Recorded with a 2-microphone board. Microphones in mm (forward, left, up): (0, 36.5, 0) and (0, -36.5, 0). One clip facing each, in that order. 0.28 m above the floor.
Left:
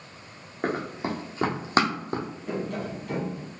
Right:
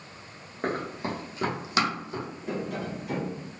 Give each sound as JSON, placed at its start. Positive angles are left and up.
{"t": 0.6, "sound": "running footsteps", "side_deg": 10, "distance_m": 1.2}
{"t": 2.5, "sound": "tapping", "side_deg": -5, "distance_m": 1.5}